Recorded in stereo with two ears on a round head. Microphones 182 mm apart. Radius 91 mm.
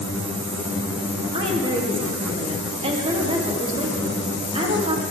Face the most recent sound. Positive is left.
turn(degrees=-25)  # may be behind; listen again after turning